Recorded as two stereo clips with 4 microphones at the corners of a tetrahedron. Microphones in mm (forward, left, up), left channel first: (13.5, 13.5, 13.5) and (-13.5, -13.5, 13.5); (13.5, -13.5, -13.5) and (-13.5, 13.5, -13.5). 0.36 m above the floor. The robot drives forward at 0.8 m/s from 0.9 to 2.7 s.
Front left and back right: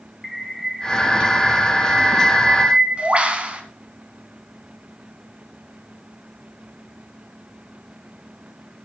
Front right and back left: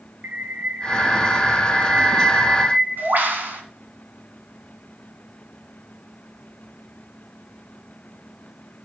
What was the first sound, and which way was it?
A bird, 135° left.